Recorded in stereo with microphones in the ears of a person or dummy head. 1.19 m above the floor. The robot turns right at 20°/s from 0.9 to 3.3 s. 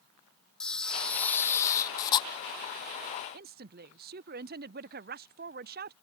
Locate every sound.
0.6 s a camera shutter: 5° left (ahead or behind); by 2.3 s 25° left (ahead or behind)
3.3 s a woman speaking: 45° right (ahead or behind)